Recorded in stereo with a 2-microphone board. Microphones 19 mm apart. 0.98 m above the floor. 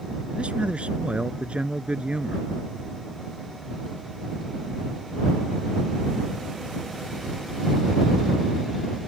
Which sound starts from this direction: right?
A man speaking, at 0.3 s.